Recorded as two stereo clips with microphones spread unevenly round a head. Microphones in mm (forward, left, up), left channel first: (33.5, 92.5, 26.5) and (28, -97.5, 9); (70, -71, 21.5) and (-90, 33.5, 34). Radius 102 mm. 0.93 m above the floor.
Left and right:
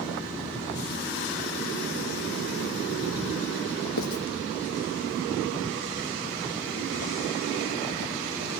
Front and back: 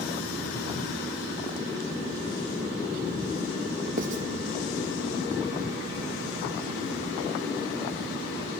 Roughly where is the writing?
Left.